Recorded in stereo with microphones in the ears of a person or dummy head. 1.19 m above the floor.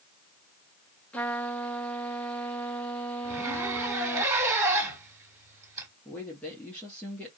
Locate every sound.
1.1 s a trumpet: 10° left (ahead or behind), 1.4 m
3.2 s a zipper: 10° right (ahead or behind), 3 m
6.0 s a woman speaking: 10° left (ahead or behind), 1.9 m